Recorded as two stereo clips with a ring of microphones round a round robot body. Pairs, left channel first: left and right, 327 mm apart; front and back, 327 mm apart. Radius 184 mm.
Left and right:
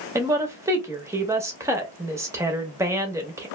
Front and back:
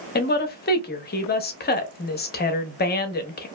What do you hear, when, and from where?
0.1 s a woman speaking: 20° right, 0.7 m